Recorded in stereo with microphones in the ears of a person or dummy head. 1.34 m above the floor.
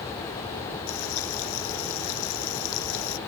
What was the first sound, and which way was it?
Frying, 85° left.